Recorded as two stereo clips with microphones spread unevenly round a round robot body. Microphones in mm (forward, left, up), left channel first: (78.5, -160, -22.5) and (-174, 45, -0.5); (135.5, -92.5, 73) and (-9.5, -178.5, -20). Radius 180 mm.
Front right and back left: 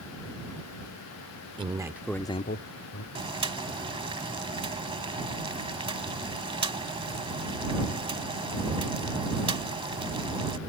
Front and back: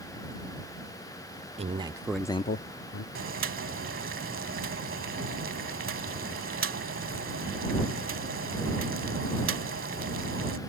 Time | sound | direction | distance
1.6 | a man speaking | 145° right | ?
3.1 | boiling | 145° right | ?